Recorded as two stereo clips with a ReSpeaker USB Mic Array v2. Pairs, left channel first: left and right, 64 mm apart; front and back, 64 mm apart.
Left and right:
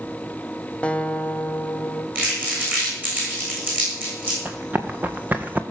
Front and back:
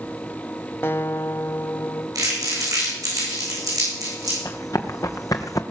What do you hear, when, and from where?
0.8 s a guitar: 30° left, 0.7 m
2.1 s crumpling: 155° right, 7.5 m
4.5 s running footsteps: 30° right, 1.6 m; by 5.6 s 25° right, 1.0 m